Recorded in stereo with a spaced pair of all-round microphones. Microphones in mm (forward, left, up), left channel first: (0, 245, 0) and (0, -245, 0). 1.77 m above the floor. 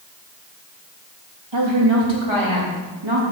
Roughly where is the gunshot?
I don't hear a gunshot.